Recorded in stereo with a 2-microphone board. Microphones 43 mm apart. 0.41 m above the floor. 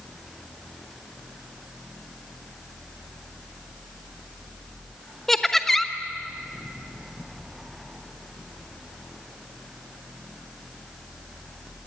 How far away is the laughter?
About 1.0 m.